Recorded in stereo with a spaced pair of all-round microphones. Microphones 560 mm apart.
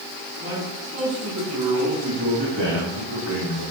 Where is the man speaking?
20° right (ahead or behind), 3.5 m; by 3.6 s 75° right (ahead or behind), 2.5 m.